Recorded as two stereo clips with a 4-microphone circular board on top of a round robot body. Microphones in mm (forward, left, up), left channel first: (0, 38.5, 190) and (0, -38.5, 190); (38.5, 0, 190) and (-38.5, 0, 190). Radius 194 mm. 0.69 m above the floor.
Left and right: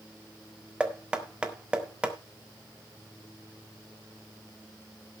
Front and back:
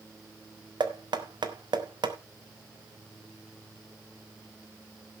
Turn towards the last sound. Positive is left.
turn(degrees=-170)